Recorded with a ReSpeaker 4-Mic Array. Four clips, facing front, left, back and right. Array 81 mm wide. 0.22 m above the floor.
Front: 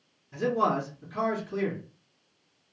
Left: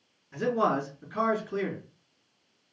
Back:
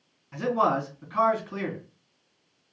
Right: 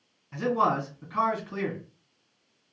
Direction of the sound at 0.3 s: 135° right.